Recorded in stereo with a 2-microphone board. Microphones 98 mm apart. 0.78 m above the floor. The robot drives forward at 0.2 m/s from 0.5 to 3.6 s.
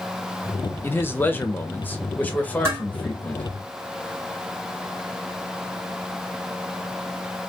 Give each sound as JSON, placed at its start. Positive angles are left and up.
{"t": 0.8, "sound": "a man speaking", "side_deg": 25, "distance_m": 0.6}
{"t": 2.6, "sound": "dishes clattering", "side_deg": -25, "distance_m": 1.9}